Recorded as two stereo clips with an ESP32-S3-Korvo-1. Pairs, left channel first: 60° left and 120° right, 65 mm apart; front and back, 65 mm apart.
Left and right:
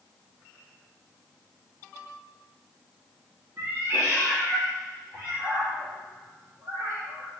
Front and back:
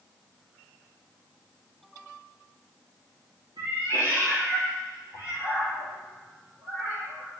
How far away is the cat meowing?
About 5.5 m.